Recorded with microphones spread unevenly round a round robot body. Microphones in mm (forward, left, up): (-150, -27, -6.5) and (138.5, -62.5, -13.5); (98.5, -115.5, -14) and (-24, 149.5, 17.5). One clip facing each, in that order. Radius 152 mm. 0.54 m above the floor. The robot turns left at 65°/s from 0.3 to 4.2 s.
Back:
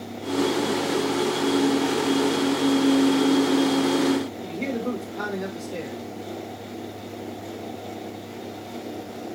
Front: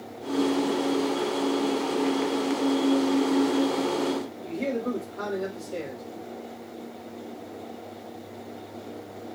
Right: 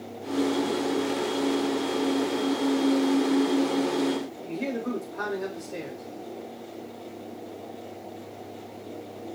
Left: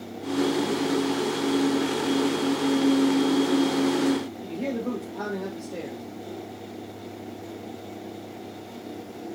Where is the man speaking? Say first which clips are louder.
Back 1 dB, left 1 dB; 135° right, 2.5 m.